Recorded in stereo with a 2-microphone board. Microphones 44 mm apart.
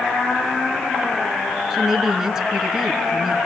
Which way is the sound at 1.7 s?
10° right (ahead or behind).